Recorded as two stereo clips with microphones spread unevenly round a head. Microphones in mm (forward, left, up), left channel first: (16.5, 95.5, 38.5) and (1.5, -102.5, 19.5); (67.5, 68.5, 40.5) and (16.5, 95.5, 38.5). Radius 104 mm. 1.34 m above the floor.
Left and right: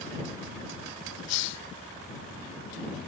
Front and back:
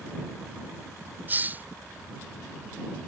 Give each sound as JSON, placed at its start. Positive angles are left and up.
{"t": 1.3, "sound": "a hiss", "azimuth_deg": 95}